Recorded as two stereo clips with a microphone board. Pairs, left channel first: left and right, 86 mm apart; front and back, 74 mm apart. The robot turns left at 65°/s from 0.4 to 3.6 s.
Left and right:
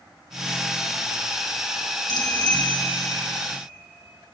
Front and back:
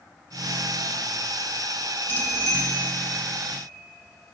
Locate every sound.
2.1 s a bicycle bell: 65° left, 4 m; by 2.7 s 30° left, 4 m